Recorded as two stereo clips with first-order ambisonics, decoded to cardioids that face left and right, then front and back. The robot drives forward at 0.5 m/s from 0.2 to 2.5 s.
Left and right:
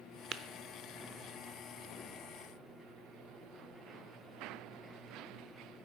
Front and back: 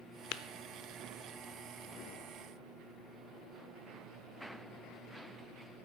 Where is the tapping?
30° right, 0.5 m; by 0.4 s 35° right, 0.5 m.